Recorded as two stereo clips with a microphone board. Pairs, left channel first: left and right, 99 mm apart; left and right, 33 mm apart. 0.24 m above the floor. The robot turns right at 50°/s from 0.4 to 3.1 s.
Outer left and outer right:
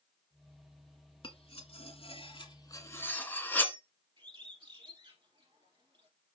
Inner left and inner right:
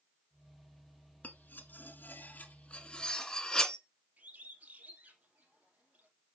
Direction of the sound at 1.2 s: 60° left (ahead or behind).